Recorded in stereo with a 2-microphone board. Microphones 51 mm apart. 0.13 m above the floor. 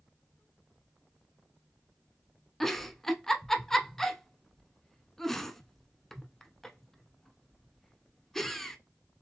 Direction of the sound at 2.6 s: 5° left (ahead or behind).